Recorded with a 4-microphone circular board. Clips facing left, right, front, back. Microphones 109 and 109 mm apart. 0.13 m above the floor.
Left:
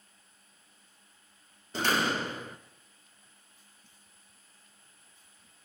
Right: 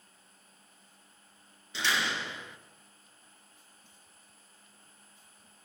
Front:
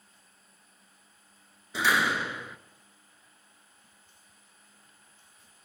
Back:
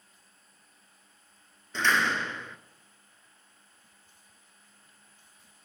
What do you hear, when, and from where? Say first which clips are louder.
1.7 s a door slam: left 4 dB, even; 80° left, 1.0 m